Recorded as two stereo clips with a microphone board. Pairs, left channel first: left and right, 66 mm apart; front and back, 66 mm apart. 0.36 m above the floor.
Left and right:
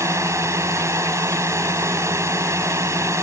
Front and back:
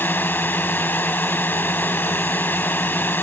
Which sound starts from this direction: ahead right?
A drone, at 0.0 s.